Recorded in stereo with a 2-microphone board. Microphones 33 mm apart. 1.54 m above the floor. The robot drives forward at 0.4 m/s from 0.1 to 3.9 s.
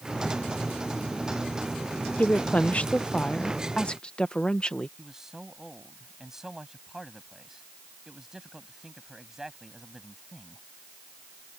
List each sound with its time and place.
2.2 s a woman speaking: 55° left (ahead or behind); by 4.9 s 35° left (ahead or behind)
5.0 s a man speaking: 15° right (ahead or behind)